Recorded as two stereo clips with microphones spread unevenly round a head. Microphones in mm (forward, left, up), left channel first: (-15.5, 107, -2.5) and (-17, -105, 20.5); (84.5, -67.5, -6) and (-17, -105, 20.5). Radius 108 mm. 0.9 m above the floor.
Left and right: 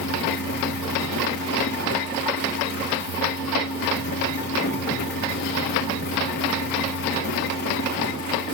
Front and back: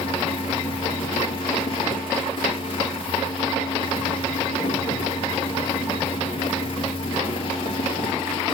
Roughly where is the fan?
Ahead left.